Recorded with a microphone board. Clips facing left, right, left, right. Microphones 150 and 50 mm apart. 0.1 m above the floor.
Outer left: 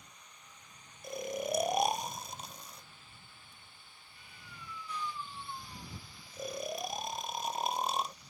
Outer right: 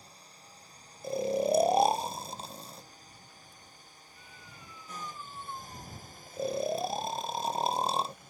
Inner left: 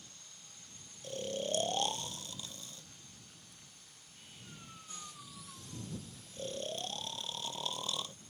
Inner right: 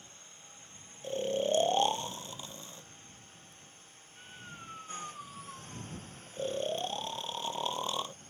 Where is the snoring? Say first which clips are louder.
Outer right 8 dB, inner right 7 dB; 30° right (ahead or behind).